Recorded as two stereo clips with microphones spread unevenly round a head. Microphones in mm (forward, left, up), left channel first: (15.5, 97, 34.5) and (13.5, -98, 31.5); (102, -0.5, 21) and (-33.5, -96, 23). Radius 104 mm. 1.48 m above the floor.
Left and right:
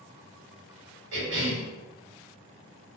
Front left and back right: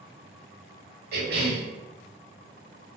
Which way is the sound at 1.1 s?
125° right.